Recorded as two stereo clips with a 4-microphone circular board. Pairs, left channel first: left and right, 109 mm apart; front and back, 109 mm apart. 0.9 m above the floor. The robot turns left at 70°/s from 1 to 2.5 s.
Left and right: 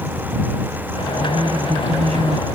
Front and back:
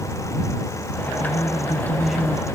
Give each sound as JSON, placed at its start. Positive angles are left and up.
{"t": 1.2, "sound": "a woman speaking", "azimuth_deg": -30}